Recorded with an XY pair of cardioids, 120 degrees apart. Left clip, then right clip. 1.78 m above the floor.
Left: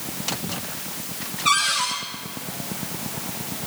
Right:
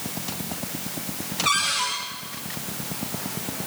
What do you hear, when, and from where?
1.4 s a cupboard door: 5° left, 8.5 m